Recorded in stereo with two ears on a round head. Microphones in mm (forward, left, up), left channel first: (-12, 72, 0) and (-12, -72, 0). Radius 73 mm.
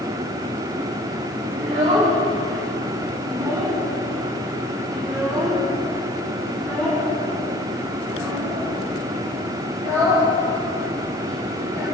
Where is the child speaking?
50° right (ahead or behind), 2.5 m; by 11.8 s 25° left (ahead or behind), 7 m.